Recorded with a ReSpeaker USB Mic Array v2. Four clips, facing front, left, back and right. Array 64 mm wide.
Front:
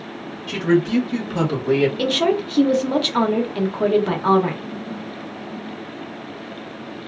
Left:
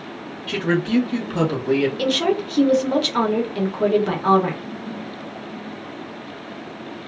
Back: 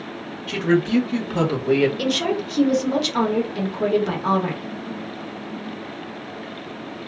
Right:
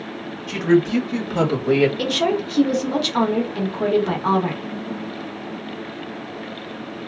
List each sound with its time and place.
0.5 s a woman speaking: 100° left, 1.5 m; by 1.9 s 95° right, 1.3 m
2.0 s a woman speaking: 10° left, 0.8 m